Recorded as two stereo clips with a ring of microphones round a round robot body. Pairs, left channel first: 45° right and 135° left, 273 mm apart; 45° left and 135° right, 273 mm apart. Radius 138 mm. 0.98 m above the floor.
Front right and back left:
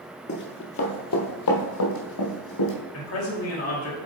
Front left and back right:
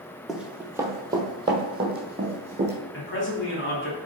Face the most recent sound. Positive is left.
turn(degrees=-5)